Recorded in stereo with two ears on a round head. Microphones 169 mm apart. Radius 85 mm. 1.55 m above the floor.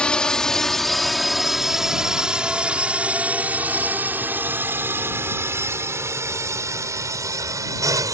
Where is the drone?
5° left (ahead or behind); by 8.1 s 20° right (ahead or behind).